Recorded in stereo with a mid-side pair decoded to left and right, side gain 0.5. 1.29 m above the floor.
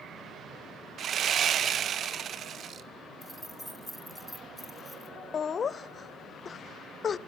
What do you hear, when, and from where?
1.0 s sawing: 50° right, 0.7 m
3.2 s keys jangling: straight ahead, 1.3 m
5.3 s laughter: 45° left, 0.6 m